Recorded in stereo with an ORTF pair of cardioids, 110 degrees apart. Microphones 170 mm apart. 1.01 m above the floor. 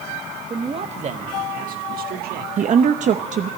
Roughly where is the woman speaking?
Ahead right.